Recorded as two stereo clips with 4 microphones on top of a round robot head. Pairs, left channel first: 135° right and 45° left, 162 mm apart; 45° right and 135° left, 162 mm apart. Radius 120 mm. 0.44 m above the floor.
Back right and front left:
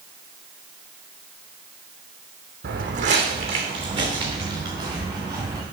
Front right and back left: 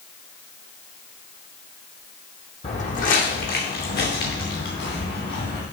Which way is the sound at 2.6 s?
10° left.